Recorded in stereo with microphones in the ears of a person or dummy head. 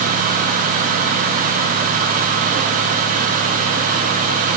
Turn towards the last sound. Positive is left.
No sound to turn to.